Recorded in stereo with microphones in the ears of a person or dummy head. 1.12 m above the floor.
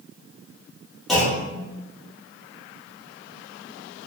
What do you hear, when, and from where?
1.1 s a clunk: 5° right (ahead or behind), 0.8 m